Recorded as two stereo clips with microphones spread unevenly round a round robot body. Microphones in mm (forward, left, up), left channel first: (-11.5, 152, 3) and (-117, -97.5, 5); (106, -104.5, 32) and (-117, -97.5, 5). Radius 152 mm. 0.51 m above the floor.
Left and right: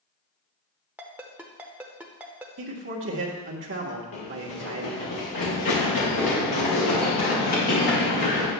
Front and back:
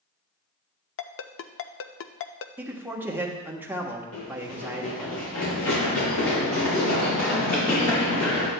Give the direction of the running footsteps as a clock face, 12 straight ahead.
11 o'clock.